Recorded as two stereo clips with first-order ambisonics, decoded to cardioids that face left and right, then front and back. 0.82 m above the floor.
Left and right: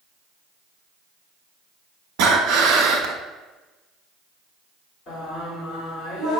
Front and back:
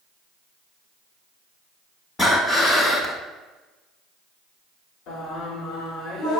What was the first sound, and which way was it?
Breathing, 75° right.